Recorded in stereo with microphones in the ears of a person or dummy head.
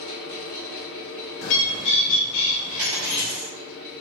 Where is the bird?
70° left (ahead or behind), 0.9 m.